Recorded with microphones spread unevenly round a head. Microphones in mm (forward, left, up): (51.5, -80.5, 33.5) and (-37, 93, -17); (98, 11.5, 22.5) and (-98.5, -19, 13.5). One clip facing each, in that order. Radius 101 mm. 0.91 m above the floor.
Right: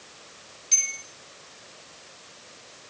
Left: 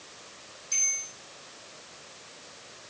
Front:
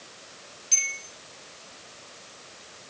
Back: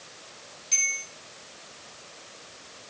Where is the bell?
70° right, 6 m.